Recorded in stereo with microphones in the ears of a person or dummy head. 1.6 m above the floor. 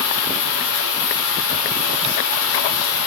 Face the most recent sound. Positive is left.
turn(degrees=70)  # may be behind; listen again after turning